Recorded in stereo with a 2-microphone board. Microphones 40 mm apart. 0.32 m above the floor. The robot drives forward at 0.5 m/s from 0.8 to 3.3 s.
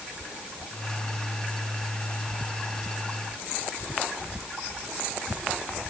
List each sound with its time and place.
Only background noise.